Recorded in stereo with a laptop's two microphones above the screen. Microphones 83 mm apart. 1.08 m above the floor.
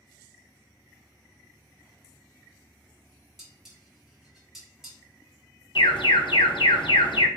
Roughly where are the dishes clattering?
Centre.